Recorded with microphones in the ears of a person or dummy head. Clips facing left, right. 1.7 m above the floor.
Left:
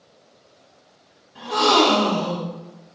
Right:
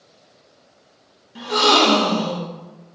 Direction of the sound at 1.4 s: 55° right (ahead or behind).